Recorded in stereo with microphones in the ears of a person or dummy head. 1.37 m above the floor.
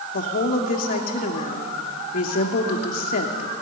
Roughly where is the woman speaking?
Left.